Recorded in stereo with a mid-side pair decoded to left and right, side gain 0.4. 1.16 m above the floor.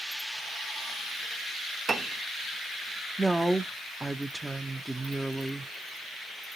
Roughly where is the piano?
Ahead right.